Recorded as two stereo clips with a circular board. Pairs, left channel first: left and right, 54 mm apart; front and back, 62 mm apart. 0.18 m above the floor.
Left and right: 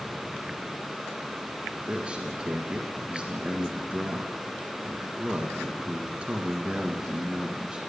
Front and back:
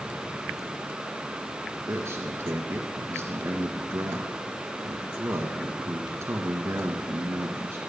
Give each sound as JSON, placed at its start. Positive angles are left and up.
{"t": 1.9, "sound": "a man speaking", "azimuth_deg": -155, "distance_m": 2.5}